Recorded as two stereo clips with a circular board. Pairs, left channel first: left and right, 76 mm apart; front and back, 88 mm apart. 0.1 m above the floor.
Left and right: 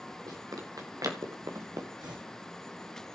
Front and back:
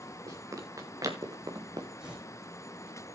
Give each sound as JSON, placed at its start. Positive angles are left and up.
{"t": 0.3, "sound": "running footsteps", "azimuth_deg": -125, "distance_m": 4.0}
{"t": 2.0, "sound": "tearing paper", "azimuth_deg": -100, "distance_m": 5.0}